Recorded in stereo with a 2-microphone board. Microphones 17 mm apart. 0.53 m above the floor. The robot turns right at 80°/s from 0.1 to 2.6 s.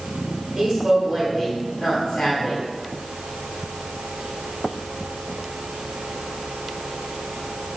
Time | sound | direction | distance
0.6 | a woman speaking | 60° right | 2.0 m